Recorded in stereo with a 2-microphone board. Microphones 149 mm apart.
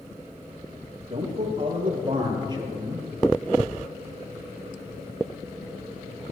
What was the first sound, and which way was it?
A man speaking, 45° right (ahead or behind).